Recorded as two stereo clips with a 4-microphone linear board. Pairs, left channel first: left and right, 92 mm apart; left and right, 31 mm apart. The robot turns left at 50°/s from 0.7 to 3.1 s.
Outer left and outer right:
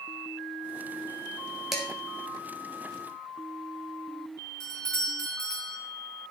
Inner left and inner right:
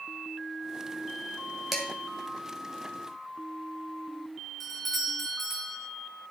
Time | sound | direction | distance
1.7 | dishes clattering | 5° right (ahead or behind) | 2.5 m
4.6 | a doorbell | 5° left (ahead or behind) | 3 m